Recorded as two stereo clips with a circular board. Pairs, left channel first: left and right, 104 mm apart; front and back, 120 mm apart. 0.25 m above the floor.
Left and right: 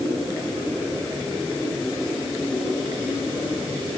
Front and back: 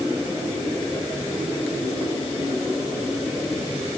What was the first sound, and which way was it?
Only background noise.